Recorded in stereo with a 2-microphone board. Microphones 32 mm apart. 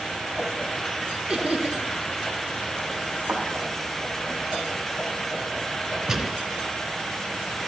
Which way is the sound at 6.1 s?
15° right (ahead or behind).